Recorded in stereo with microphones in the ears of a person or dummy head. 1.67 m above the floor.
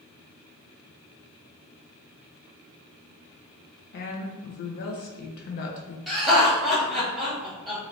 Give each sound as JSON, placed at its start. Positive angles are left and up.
{"t": 3.9, "sound": "a woman speaking", "side_deg": 55, "distance_m": 0.6}
{"t": 6.1, "sound": "laughter", "side_deg": -5, "distance_m": 1.3}